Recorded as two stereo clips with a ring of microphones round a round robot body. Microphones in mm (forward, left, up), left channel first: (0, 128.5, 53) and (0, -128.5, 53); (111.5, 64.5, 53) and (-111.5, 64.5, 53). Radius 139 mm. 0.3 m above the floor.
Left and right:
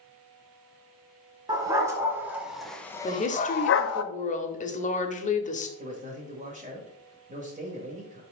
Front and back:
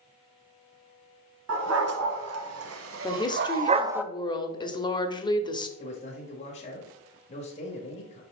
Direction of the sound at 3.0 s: 55° left.